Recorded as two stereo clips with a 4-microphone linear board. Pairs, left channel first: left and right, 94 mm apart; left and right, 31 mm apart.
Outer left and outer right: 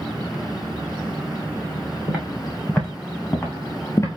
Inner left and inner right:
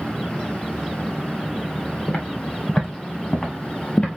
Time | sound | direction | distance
2.1 | footsteps | 5° right (ahead or behind) | 3 m